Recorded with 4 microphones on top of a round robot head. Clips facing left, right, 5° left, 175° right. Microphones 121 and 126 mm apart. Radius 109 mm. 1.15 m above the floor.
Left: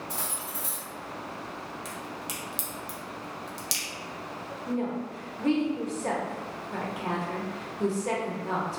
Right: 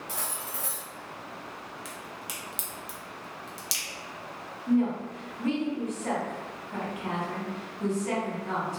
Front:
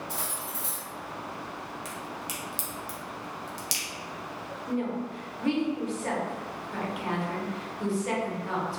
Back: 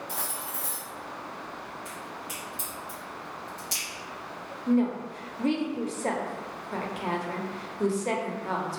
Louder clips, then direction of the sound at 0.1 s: Left 1 dB, even; 125° right.